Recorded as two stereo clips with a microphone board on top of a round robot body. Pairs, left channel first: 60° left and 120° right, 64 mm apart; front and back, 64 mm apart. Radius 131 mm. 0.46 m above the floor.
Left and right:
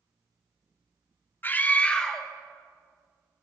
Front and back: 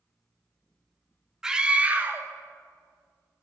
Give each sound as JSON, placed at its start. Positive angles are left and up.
{"t": 1.4, "sound": "a scream", "azimuth_deg": 105, "distance_m": 1.4}